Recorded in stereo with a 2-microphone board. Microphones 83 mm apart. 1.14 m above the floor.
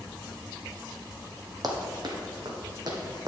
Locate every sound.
1.6 s running footsteps: 50° right (ahead or behind), 1.9 m; by 3.3 s 55° right (ahead or behind), 2.5 m